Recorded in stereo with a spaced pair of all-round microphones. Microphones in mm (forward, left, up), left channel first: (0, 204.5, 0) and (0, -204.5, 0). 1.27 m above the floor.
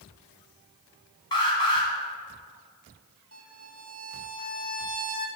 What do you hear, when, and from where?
1.3 s an alarm: 85° left, 3 m
3.3 s a violin: 35° right (ahead or behind), 1.6 m